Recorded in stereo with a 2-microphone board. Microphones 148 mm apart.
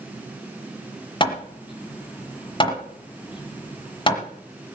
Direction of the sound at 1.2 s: 35° left (ahead or behind).